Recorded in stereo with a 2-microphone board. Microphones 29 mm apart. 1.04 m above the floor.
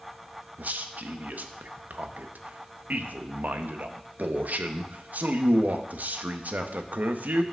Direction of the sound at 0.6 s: 65° right (ahead or behind).